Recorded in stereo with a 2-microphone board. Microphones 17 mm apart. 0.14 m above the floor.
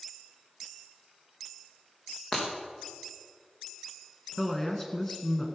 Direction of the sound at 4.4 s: 20° left (ahead or behind).